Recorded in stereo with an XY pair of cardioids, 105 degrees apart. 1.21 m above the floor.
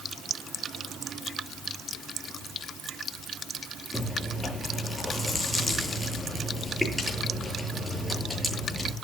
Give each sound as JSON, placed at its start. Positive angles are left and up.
{"t": 3.9, "sound": "chewing", "azimuth_deg": 10, "distance_m": 8.5}